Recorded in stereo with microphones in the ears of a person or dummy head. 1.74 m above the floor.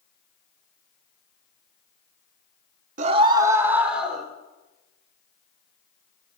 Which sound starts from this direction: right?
A scream, at 3.0 s.